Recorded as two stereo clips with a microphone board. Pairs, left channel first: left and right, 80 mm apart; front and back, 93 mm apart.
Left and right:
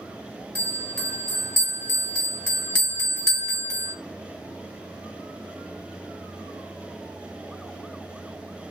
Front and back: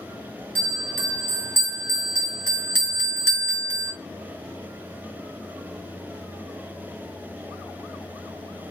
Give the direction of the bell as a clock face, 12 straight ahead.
11 o'clock.